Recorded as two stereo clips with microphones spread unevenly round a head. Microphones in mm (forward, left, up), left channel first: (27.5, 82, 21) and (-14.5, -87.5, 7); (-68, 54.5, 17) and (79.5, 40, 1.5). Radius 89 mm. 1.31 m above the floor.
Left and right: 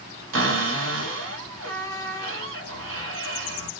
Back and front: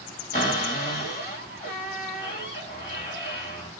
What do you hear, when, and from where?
0.3 s a cupboard door: 125° right, 2 m